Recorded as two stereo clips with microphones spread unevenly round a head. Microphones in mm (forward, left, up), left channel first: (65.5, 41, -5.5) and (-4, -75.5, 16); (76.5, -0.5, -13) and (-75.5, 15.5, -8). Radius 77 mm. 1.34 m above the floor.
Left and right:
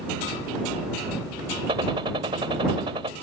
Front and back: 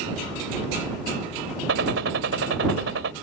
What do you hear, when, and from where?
1.7 s a gunshot: 175° left